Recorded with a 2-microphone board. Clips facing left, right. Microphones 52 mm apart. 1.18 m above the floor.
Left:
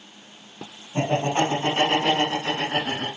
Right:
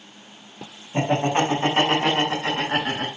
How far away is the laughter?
About 5.5 m.